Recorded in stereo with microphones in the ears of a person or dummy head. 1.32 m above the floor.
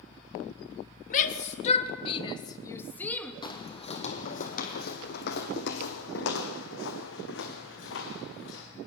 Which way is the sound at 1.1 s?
45° left (ahead or behind).